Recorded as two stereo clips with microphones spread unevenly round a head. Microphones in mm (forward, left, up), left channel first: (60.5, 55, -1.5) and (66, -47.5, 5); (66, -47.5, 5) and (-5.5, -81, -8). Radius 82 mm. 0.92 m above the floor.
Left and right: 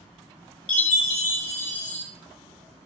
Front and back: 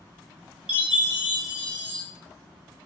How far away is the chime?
About 1.7 m.